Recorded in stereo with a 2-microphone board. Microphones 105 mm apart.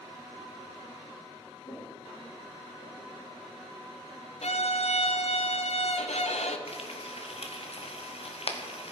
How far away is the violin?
About 0.8 m.